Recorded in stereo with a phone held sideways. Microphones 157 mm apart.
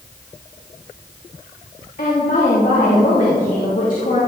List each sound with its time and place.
2.0 s a woman speaking: 55° left (ahead or behind), 2.5 m